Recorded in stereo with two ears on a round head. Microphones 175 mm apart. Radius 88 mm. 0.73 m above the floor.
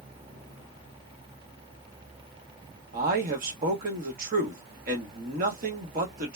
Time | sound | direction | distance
2.9 | a man speaking | 45° right (ahead or behind) | 1.0 m